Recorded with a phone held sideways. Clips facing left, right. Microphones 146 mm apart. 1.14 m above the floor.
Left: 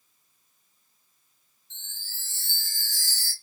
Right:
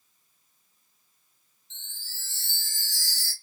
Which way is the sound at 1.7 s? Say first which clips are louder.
Left 1 dB; 55° left (ahead or behind).